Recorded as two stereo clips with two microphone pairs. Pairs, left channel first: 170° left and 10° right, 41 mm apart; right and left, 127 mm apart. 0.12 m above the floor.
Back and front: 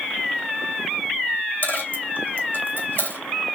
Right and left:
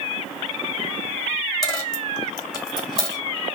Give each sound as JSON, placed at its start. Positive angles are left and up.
{"t": 1.6, "sound": "a dropped coin", "azimuth_deg": -150, "distance_m": 2.5}